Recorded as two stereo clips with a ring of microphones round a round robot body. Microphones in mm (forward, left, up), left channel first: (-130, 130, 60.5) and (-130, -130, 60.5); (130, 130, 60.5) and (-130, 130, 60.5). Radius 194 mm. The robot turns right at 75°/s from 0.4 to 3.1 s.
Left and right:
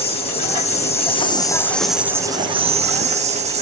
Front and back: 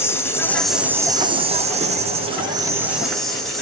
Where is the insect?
70° left, 0.8 m; by 3.6 s 90° right, 0.8 m.